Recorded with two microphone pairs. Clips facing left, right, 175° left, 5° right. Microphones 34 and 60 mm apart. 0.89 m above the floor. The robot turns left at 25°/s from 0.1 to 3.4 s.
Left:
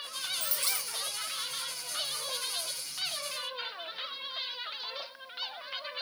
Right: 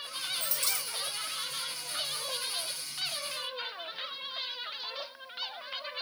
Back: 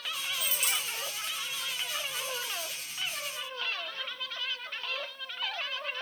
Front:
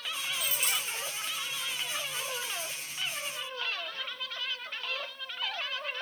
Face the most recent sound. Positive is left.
turn(degrees=-30)